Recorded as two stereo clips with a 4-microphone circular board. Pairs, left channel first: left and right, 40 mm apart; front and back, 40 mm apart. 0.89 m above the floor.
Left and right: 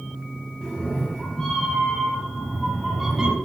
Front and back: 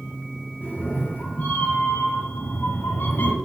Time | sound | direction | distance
0.6 | a cat meowing | 20° left | 4.5 m